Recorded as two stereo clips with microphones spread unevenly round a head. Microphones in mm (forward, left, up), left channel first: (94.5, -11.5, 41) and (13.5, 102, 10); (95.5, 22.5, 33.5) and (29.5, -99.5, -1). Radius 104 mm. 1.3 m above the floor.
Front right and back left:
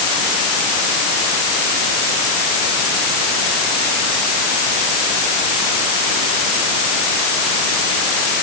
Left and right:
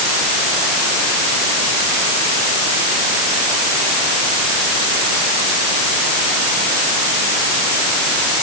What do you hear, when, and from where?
Only background noise.